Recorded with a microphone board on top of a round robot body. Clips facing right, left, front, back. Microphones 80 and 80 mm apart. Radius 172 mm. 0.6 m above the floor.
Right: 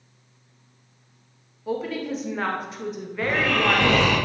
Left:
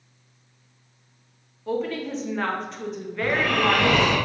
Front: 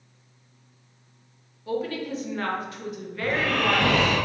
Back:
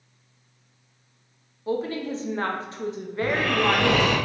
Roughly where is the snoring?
Behind.